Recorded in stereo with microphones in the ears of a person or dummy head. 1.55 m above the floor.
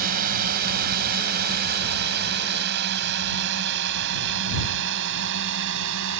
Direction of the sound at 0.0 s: 50° right (ahead or behind).